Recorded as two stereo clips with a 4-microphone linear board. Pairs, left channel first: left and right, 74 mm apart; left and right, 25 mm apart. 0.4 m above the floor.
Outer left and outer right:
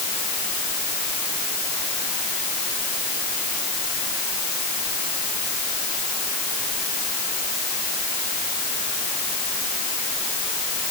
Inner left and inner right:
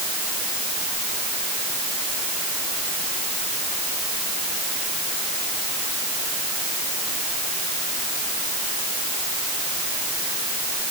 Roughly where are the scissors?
No scissors in this recording.